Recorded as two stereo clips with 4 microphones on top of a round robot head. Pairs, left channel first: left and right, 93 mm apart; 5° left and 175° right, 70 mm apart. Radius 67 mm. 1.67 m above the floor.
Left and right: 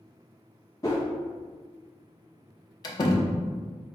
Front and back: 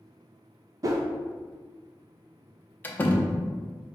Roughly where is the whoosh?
Behind left.